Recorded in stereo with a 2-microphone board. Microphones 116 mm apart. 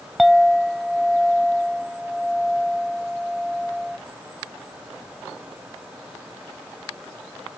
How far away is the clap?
No clap in this recording.